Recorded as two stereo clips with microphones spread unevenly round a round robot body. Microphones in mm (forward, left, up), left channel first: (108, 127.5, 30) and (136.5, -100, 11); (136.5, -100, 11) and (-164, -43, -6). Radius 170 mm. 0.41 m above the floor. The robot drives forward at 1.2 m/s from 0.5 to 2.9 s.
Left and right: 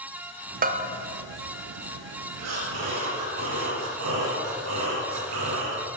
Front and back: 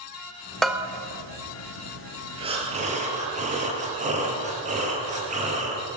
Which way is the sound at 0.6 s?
100° right.